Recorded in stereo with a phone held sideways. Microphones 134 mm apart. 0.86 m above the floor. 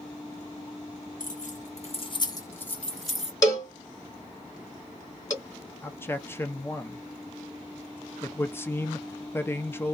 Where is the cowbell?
25° left (ahead or behind), 1.3 m.